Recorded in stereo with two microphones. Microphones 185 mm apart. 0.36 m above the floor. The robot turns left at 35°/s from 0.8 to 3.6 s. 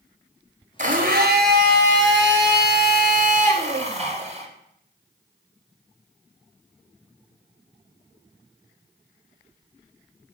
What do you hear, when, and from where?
0.8 s a blender: 45° right, 1.1 m; by 4.5 s 140° right, 1.1 m